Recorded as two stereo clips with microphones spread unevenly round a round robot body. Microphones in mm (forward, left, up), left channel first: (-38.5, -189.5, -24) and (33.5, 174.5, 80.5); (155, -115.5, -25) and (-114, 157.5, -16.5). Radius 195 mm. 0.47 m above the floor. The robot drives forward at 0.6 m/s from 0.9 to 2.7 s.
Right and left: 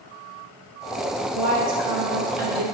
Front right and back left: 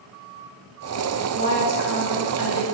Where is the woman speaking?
70° left, 1.3 m; by 2.6 s 120° left, 1.3 m.